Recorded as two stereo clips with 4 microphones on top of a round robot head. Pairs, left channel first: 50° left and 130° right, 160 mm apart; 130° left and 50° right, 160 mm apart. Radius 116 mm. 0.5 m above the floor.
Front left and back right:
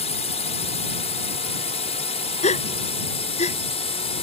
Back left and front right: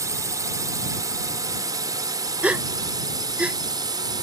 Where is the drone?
15° left; by 4.2 s 10° left.